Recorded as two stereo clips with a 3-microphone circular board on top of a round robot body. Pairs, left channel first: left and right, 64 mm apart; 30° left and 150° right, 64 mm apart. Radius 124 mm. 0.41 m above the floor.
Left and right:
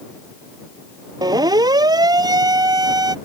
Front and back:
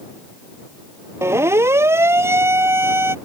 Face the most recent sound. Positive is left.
turn(degrees=-100)